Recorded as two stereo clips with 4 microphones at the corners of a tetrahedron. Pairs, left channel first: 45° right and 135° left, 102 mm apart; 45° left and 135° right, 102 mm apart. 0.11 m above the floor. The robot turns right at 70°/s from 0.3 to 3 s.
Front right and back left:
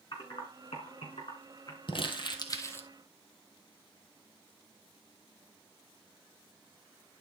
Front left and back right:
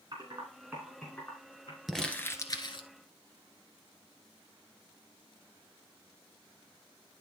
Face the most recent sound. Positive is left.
turn(degrees=30)